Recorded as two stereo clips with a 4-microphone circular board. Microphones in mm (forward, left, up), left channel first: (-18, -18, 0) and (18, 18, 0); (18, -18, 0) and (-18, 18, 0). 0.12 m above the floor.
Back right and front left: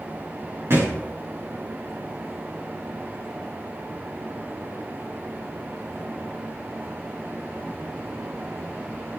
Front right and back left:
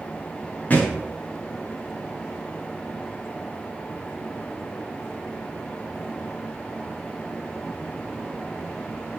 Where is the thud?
15° left, 8.5 m.